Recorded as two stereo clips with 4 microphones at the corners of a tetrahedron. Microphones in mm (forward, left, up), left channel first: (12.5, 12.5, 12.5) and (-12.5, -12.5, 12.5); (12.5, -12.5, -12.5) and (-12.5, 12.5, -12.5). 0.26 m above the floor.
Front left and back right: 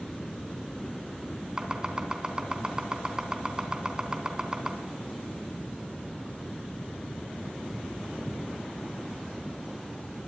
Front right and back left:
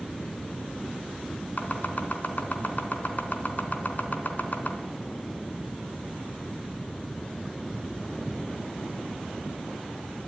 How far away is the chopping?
About 3 m.